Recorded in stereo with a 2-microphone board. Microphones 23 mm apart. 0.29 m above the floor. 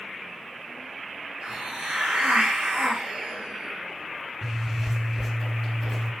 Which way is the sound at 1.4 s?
75° right (ahead or behind).